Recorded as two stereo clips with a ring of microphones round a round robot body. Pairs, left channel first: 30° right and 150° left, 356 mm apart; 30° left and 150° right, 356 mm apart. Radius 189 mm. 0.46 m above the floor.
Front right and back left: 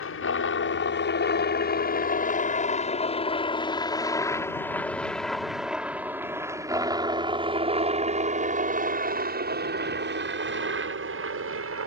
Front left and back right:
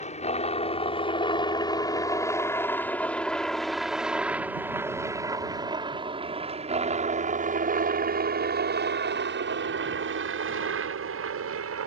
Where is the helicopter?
25° right; by 11.9 s straight behind.